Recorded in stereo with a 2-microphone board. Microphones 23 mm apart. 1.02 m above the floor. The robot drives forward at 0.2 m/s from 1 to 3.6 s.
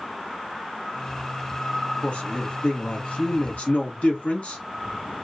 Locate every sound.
2.0 s a man speaking: 60° left (ahead or behind), 1.1 m; by 4.6 s 65° left (ahead or behind), 1.1 m